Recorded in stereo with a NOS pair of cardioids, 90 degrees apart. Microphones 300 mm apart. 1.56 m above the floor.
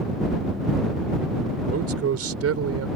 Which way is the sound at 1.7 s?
55° right.